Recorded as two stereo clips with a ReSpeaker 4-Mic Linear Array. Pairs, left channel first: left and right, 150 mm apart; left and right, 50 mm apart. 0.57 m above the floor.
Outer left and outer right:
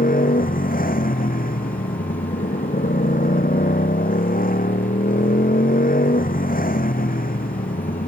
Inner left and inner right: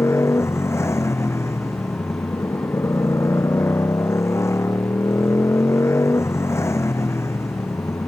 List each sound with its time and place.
0.0 s a motorcycle: 70° left (ahead or behind)